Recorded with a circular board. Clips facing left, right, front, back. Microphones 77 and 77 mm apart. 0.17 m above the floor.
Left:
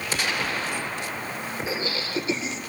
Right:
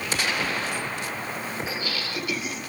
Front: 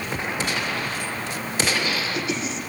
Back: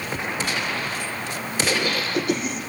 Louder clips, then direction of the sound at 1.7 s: Left 2 dB, back 3 dB; 150° left.